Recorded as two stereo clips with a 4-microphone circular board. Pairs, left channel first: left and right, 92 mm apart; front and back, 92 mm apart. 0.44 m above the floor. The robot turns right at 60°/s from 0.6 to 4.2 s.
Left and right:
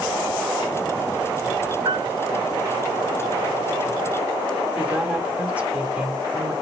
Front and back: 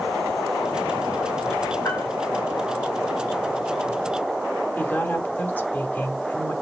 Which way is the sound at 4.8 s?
35° right.